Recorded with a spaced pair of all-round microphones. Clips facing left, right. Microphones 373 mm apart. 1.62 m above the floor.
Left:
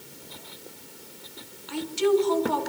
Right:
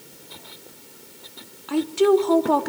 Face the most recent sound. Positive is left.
turn(degrees=-70)  # may be behind; listen again after turning